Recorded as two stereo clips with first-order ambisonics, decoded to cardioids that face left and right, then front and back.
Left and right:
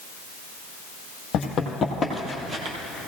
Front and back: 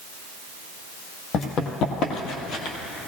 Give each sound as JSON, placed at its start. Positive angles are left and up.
{"t": 1.3, "sound": "running footsteps", "azimuth_deg": 45, "distance_m": 2.0}